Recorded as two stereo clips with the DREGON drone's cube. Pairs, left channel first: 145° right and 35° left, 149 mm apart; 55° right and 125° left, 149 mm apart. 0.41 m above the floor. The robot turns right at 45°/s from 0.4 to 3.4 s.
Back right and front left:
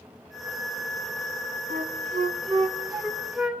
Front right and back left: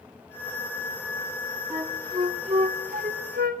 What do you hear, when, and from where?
1.7 s a flute: 45° left, 2 m; by 3.6 s 120° left, 2 m